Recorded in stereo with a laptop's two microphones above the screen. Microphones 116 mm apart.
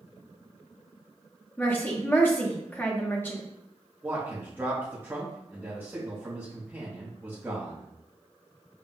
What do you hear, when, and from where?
1.6 s a woman speaking: 15° left (ahead or behind), 0.8 m
4.0 s a man speaking: 20° right (ahead or behind), 0.7 m